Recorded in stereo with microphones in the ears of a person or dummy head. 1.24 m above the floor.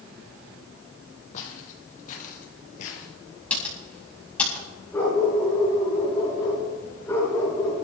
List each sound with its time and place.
1.3 s footsteps: 45° left (ahead or behind), 3 m
3.5 s typing on a keyboard: 10° left (ahead or behind), 6.5 m
4.9 s a dog barking: 10° left (ahead or behind), 5.5 m